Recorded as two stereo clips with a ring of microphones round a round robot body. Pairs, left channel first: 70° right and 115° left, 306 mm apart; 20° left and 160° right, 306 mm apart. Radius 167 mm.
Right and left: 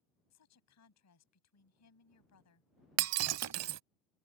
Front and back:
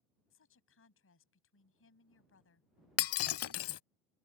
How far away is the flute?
No flute in this recording.